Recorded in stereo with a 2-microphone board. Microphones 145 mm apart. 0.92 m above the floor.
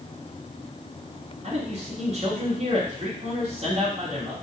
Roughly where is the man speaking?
Right.